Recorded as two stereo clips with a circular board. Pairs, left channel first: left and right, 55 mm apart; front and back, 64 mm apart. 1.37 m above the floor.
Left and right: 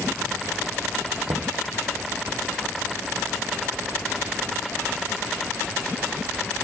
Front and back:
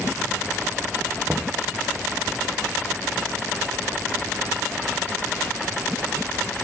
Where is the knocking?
110° right, 0.9 m.